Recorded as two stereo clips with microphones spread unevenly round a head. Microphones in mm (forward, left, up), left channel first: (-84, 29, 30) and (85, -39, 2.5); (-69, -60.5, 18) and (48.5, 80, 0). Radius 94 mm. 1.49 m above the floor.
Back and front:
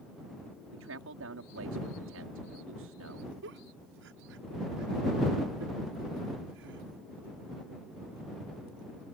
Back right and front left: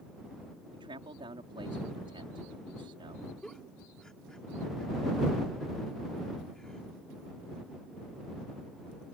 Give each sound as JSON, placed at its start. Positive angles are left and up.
{"t": 0.7, "sound": "a man speaking", "azimuth_deg": -15}
{"t": 3.4, "sound": "a giggle", "azimuth_deg": -45}